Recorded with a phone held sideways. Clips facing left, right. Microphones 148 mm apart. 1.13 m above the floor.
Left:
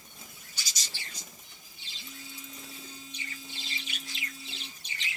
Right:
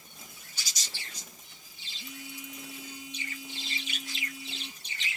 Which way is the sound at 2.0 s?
15° right (ahead or behind).